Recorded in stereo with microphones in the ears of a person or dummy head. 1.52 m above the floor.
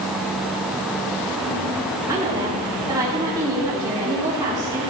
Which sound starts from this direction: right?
A woman speaking, at 2.1 s.